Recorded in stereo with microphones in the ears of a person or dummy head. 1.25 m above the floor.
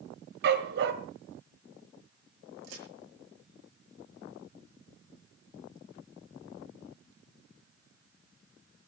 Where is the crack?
80° right, 7 m.